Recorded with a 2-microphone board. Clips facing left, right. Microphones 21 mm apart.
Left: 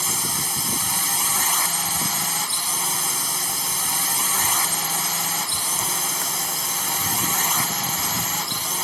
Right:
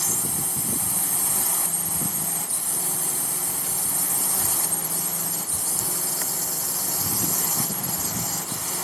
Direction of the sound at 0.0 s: 65° left (ahead or behind).